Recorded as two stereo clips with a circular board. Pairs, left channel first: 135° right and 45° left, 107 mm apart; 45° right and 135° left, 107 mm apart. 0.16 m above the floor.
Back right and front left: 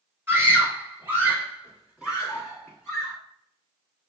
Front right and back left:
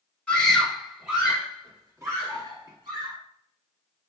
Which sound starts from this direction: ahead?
A scream, at 0.3 s.